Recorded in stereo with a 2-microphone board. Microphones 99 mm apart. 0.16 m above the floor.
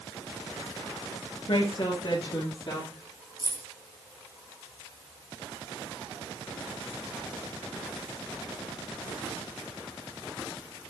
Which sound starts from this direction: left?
A woman speaking, at 1.5 s.